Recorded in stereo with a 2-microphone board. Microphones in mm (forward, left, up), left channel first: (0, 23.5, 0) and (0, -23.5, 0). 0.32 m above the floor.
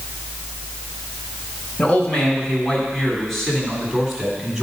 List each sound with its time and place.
1.8 s a man speaking: 25° left (ahead or behind), 2.5 m; by 4.6 s 10° right (ahead or behind), 2.5 m